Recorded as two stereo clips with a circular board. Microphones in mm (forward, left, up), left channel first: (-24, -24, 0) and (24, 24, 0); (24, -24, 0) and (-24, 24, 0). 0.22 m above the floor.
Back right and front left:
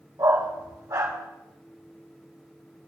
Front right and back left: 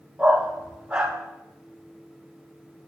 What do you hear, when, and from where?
0.2 s a dog barking: 60° left, 4 m